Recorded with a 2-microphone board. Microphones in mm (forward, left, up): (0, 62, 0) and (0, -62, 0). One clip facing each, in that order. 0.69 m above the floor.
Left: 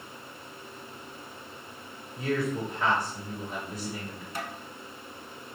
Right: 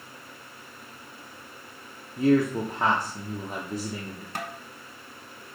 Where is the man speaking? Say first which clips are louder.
Right 8 dB; 45° right (ahead or behind), 1.0 m.